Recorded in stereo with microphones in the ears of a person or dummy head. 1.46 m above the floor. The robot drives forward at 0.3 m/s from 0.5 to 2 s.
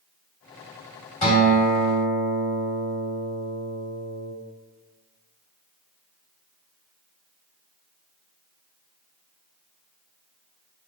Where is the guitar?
35° left (ahead or behind), 1.5 m; by 4.3 s 30° left (ahead or behind), 1.6 m.